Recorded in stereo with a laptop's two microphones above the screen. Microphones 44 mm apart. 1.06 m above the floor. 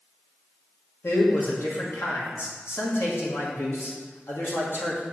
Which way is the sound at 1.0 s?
70° left (ahead or behind).